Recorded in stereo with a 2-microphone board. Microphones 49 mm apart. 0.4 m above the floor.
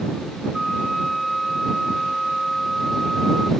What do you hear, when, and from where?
0.5 s a flute: centre (ahead or behind)